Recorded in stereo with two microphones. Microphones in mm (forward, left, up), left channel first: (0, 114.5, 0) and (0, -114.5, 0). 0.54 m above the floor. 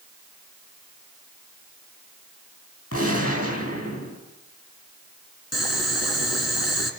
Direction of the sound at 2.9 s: 75° left (ahead or behind).